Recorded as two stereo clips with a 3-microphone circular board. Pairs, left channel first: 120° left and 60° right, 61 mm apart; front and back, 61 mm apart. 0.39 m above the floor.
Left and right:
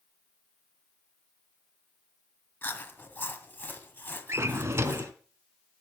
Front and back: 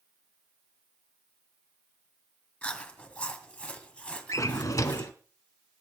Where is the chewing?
65° left, 2 m.